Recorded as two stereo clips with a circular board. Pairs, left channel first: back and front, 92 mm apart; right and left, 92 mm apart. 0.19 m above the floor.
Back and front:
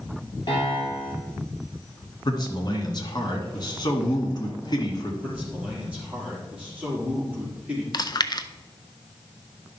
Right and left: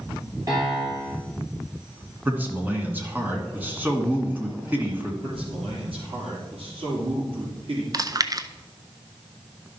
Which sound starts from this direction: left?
A man speaking, at 5.2 s.